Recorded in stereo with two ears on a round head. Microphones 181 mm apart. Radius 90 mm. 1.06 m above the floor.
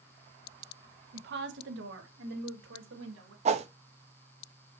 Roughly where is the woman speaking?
Right.